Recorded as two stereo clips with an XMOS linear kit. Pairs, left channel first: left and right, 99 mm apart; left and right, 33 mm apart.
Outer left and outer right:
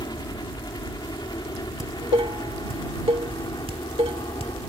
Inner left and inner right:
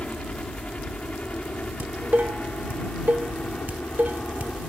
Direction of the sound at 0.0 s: 45° left (ahead or behind).